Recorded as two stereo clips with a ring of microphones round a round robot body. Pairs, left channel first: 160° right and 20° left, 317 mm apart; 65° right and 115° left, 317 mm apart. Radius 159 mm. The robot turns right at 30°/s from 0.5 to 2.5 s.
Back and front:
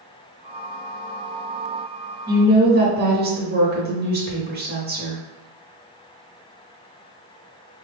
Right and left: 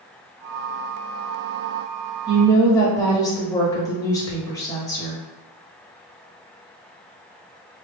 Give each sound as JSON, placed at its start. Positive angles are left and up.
{"t": 2.3, "sound": "a woman speaking", "azimuth_deg": -5, "distance_m": 1.0}